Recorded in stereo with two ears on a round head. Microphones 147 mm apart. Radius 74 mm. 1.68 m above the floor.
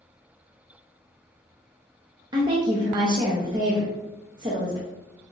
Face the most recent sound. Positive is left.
turn(degrees=-25)  # may be behind; listen again after turning